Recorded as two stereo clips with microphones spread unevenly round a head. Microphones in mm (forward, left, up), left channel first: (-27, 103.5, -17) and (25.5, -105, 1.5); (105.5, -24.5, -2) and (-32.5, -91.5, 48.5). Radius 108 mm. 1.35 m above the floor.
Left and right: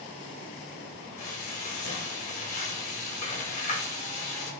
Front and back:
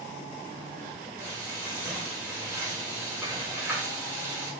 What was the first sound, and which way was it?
Frying, 150° left.